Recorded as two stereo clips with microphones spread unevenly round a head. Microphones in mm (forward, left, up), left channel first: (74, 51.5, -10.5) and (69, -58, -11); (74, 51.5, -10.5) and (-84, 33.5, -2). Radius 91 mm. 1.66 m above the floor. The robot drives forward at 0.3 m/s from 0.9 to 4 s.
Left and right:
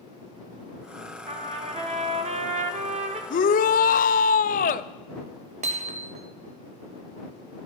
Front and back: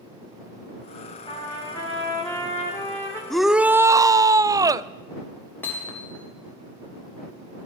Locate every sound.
1.3 s a trumpet: 60° right, 2 m; by 3.2 s 75° right, 1.9 m
3.3 s a shout: 95° left, 0.5 m; by 4.9 s 115° left, 0.6 m
5.6 s hammering: 75° right, 1.1 m